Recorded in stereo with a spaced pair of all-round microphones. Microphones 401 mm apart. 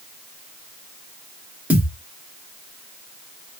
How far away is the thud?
About 1.1 m.